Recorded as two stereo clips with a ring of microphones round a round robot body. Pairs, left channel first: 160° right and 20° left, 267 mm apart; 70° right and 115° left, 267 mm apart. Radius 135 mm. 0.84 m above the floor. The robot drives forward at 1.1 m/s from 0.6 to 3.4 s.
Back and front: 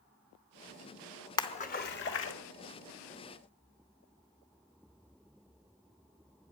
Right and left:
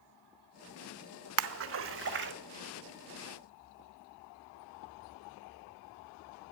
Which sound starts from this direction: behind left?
A splash, at 1.4 s.